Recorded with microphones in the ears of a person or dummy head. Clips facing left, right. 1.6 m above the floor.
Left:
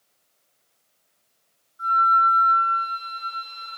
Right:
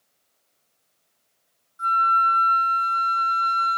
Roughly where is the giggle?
I don't hear a giggle.